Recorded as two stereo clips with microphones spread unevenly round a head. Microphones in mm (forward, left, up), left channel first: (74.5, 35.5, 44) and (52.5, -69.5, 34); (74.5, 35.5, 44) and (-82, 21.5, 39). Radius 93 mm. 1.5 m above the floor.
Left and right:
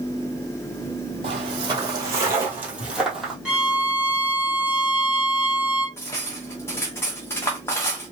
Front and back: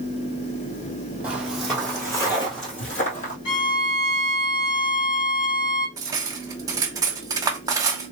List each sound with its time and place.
1.2 s footsteps: 95° right, 1.8 m; by 3.4 s 10° right, 2.0 m
3.5 s a violin: 20° right, 2.5 m
6.0 s cutlery clinking: 130° left, 0.7 m